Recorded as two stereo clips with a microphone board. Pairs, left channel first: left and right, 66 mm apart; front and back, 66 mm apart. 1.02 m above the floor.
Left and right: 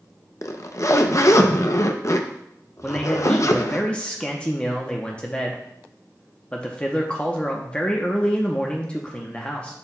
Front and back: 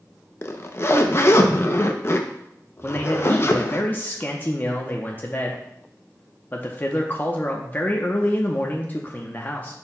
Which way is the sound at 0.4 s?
45° left.